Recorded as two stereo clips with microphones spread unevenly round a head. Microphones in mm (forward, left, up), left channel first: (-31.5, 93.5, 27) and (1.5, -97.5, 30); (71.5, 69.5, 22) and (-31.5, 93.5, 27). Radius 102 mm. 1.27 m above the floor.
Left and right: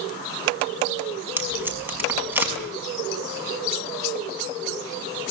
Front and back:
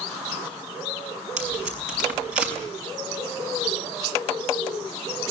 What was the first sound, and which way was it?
Tape being pulled, 160° right.